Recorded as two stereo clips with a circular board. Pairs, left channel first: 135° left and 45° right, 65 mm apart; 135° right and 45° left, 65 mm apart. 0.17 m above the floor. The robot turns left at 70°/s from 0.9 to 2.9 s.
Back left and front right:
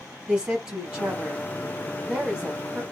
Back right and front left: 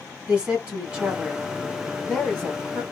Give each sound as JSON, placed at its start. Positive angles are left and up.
{"t": 0.3, "sound": "a woman speaking", "azimuth_deg": 15, "distance_m": 1.2}